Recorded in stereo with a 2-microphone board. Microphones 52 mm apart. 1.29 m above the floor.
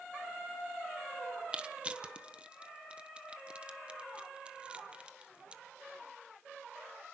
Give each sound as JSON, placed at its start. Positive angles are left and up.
{"t": 1.5, "sound": "crushing", "side_deg": -20, "distance_m": 1.0}